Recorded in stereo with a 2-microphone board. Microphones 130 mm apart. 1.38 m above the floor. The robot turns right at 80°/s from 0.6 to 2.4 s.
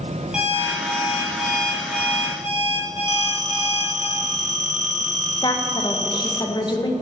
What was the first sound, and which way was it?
An alarm clock, 5° right.